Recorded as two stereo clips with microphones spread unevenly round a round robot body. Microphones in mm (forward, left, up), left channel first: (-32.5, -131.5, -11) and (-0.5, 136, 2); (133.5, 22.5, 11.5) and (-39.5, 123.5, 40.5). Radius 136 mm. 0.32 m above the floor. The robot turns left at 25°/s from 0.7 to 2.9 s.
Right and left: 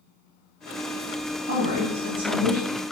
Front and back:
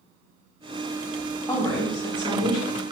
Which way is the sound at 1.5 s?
40° left.